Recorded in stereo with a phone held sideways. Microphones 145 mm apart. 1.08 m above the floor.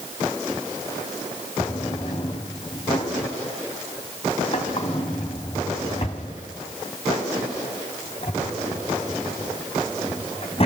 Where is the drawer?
45° left (ahead or behind), 3 m.